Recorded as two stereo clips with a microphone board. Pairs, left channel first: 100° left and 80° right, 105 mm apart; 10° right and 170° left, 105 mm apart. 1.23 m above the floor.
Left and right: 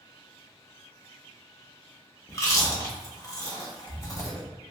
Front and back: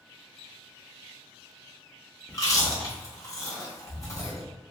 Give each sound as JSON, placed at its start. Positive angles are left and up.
{"t": 2.3, "sound": "chewing", "azimuth_deg": 40, "distance_m": 0.9}